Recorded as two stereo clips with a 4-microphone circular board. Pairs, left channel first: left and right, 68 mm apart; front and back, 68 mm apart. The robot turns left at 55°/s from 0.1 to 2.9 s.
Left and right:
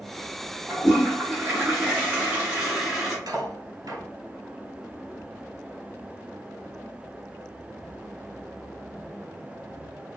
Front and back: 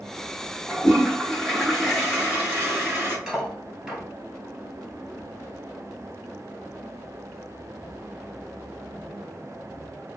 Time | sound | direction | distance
0.7 | a toilet flushing | 40° right | 1.7 m
3.3 | cutlery clinking | 100° right | 1.9 m